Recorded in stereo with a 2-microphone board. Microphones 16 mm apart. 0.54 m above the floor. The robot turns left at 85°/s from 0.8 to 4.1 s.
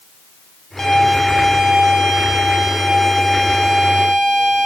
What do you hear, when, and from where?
0.8 s a violin: 25° left, 0.7 m; by 4.7 s 105° left, 0.7 m